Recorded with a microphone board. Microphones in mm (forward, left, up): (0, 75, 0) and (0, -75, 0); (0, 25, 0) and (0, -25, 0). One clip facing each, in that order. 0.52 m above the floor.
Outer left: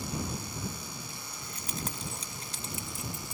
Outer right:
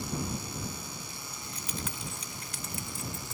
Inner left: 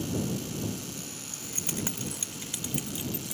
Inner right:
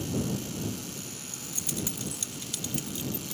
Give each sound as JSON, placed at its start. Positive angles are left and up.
{"t": 1.3, "sound": "keys jangling", "side_deg": 50}